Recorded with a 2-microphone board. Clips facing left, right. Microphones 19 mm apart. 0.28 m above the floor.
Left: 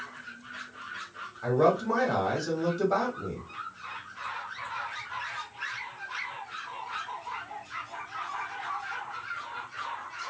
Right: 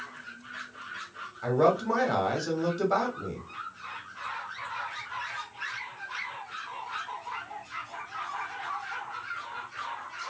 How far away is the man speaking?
About 1.0 m.